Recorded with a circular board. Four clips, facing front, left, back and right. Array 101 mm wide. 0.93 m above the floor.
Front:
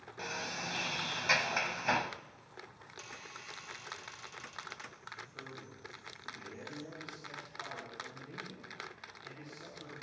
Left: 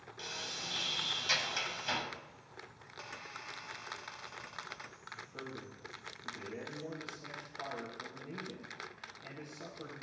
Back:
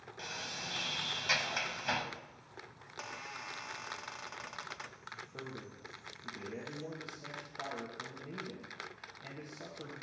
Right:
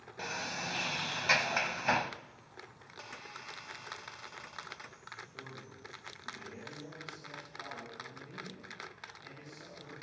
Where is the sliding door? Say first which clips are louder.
Right 7 dB, front 5 dB; 65° right, 0.9 m.